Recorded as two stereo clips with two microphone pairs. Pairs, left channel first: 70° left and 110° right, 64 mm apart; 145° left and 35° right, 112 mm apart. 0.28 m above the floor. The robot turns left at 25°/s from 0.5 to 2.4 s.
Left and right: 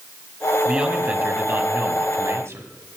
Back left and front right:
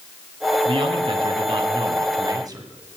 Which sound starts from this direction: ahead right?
A man speaking, at 0.7 s.